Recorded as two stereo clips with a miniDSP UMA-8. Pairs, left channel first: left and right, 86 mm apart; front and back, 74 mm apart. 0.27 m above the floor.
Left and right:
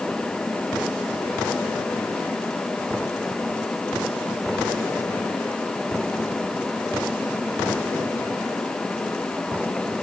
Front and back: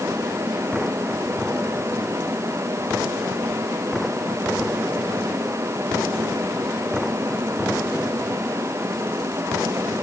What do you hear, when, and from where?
Only background noise.